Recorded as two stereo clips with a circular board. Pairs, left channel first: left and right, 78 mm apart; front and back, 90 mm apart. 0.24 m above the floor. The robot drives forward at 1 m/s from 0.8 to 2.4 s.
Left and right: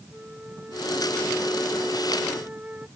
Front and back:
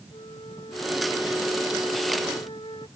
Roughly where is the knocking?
I don't hear knocking.